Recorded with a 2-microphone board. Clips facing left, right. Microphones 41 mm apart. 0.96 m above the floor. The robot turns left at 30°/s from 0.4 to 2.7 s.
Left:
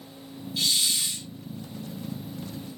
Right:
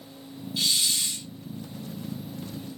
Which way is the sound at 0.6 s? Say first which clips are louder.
Even; 5° right (ahead or behind).